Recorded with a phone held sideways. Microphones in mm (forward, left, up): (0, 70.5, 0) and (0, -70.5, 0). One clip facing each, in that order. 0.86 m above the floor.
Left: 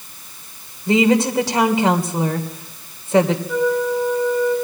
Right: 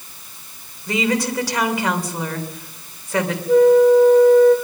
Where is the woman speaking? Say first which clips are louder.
Left 6 dB; 25° left (ahead or behind), 3 m.